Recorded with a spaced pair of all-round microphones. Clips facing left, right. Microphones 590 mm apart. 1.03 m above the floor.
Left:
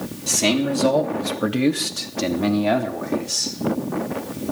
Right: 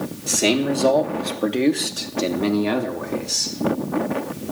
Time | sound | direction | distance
0.3 | a man speaking | 25° left (ahead or behind) | 1.6 m